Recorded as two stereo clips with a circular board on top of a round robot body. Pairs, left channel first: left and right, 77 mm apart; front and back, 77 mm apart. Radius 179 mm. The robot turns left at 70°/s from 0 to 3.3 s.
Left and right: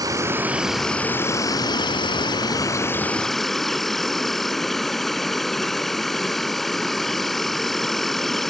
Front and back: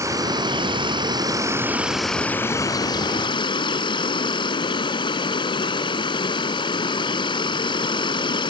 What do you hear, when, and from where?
0.0 s an insect: 125° right; by 8.5 s straight ahead